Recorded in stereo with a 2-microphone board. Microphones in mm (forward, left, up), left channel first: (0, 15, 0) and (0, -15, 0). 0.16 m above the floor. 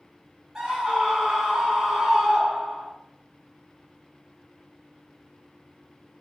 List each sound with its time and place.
0.6 s a scream: 25° right (ahead or behind), 1.1 m